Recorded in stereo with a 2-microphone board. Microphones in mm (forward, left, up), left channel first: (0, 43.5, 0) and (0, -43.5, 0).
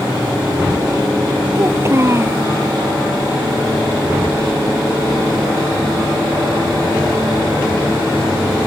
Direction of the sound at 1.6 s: 30° right (ahead or behind).